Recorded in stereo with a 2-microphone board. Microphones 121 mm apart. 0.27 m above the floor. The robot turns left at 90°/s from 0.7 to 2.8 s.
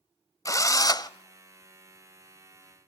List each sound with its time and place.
0.5 s a drill: 120° left, 0.5 m; by 1.1 s 85° left, 0.5 m